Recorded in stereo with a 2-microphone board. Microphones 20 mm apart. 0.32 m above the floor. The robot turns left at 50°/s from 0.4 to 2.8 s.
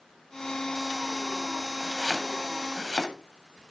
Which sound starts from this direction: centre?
Chopping, at 1.8 s.